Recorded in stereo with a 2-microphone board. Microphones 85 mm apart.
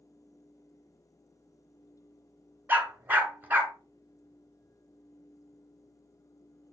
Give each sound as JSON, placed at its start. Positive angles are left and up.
{"t": 2.7, "sound": "a dog barking", "side_deg": -20, "distance_m": 1.4}